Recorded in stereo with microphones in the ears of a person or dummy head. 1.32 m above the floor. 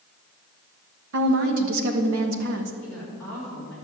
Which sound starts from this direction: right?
A woman speaking, at 1.1 s.